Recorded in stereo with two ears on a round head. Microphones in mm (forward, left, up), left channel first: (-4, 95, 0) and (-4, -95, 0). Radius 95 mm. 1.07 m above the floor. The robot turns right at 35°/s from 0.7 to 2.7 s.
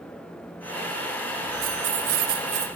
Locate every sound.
1.6 s keys jangling: 65° right, 0.8 m; by 2.7 s 30° right, 0.8 m